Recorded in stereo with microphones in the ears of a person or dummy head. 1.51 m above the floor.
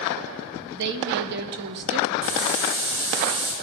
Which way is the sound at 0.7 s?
55° right (ahead or behind).